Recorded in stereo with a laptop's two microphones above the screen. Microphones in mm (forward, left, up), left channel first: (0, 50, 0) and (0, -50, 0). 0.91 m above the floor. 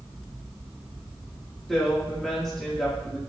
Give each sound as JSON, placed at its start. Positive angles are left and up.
{"t": 1.7, "sound": "a woman speaking", "side_deg": 5, "distance_m": 2.5}